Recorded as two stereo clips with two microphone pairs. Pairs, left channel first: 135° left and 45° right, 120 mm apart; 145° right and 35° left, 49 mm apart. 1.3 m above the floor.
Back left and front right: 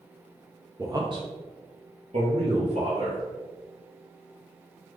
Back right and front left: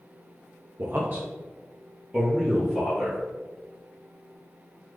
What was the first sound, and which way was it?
A man speaking, 10° left.